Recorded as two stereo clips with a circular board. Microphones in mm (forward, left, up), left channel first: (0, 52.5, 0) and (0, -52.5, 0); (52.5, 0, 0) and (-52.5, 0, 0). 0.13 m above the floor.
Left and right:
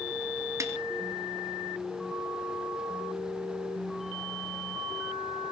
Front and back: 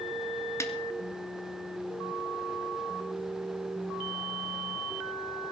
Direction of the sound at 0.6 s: 45° right.